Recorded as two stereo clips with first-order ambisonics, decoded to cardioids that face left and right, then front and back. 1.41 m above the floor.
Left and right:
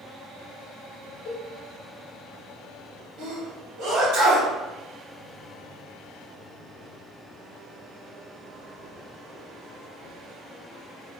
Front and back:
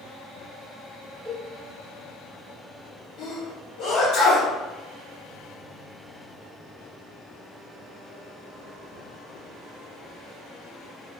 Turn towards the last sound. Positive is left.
turn(degrees=-50)